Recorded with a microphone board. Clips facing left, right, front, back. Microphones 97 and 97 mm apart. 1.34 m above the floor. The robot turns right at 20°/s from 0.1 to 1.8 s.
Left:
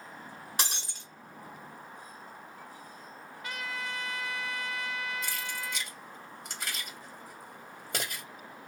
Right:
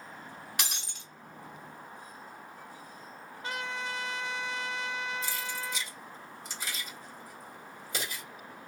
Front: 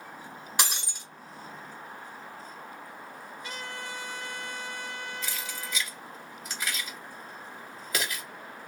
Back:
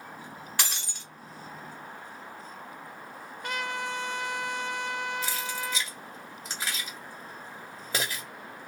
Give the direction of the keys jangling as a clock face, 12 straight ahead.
8 o'clock.